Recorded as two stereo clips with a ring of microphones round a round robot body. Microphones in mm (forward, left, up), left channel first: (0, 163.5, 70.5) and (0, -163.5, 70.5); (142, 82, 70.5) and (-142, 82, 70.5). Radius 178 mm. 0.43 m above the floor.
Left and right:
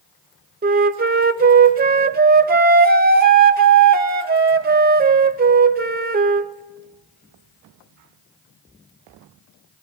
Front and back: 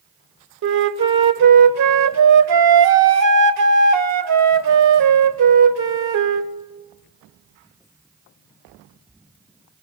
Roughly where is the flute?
Behind right.